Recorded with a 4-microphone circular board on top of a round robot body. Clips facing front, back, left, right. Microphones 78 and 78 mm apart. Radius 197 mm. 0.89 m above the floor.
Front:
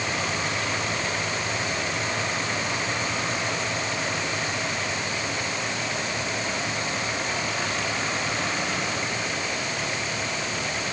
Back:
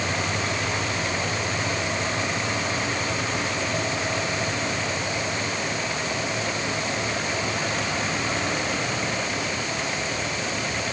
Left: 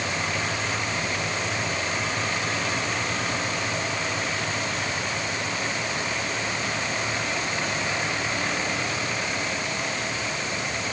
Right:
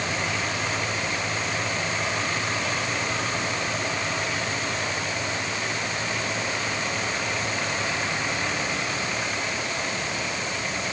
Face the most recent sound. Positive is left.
No sound to turn to.